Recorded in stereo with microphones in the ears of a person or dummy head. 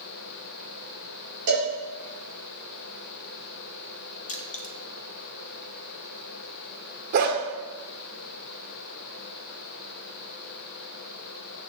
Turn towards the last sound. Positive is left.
turn(degrees=-50)  # may be behind; listen again after turning